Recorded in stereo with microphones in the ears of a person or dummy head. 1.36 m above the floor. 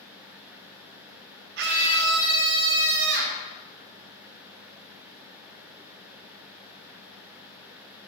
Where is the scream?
60° right (ahead or behind), 1.8 m.